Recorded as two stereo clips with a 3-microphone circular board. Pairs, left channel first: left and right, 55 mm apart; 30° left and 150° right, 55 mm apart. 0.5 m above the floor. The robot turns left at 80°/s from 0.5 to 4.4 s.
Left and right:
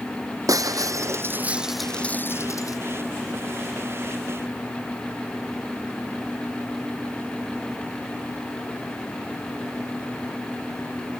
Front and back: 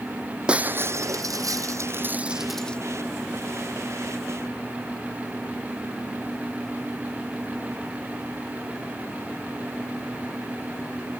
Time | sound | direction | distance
0.5 | breaking glass | 75° right | ?